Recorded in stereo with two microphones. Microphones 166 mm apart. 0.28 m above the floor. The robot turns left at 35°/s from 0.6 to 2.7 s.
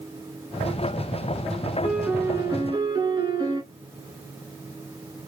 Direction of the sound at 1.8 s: Straight ahead.